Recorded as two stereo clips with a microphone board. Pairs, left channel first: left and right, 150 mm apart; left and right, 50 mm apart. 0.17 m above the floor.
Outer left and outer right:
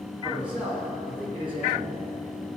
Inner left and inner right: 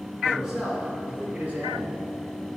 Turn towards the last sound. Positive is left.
turn(degrees=-45)  # may be behind; listen again after turning